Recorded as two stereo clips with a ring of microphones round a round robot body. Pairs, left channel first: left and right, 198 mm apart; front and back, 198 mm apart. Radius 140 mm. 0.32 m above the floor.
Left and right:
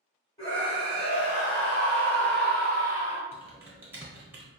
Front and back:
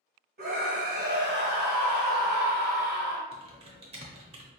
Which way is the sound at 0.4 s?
155° left.